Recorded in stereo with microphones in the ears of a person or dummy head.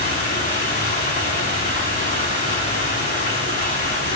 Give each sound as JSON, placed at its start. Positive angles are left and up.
{"t": 0.0, "sound": "running water", "side_deg": 35, "distance_m": 7.0}